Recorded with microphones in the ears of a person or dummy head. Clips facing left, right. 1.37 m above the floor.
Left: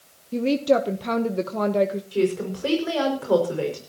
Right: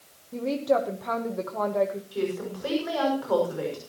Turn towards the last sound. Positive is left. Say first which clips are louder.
# left 6 dB
turn(degrees=35)  # may be behind; listen again after turning